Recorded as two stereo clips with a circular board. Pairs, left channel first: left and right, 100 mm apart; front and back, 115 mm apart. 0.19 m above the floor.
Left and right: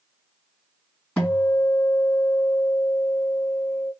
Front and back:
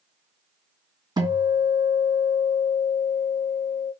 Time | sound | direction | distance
1.2 | a guitar | 170° left | 1.9 m